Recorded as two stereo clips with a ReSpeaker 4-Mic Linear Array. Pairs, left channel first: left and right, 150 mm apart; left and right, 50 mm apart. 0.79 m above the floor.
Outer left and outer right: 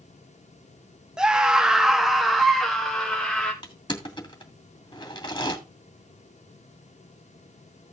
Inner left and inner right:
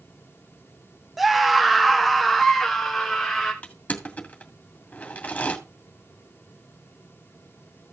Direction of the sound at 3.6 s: 30° left (ahead or behind).